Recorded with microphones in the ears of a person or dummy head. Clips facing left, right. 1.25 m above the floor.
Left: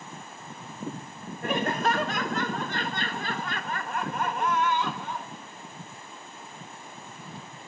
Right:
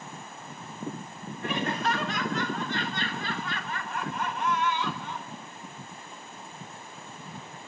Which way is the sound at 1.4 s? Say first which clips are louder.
Left 3 dB; 40° left (ahead or behind).